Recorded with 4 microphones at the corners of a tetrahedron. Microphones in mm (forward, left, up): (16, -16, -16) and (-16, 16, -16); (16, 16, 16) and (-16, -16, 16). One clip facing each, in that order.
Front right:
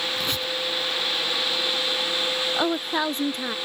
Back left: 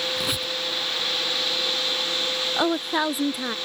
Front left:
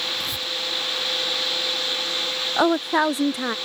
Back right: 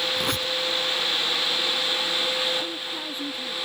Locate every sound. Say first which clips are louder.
0.2 s a squeak: even, back right 3 dB; 150° right
2.6 s a woman speaking: back left 3 dB, front left 12 dB; 50° left